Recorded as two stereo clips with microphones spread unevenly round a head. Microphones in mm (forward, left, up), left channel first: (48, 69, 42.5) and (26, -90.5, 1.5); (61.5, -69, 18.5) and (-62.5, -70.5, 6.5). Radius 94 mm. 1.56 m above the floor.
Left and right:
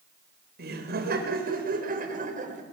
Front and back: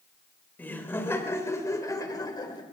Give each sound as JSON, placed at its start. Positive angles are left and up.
{"t": 0.6, "sound": "laughter", "azimuth_deg": -75, "distance_m": 5.5}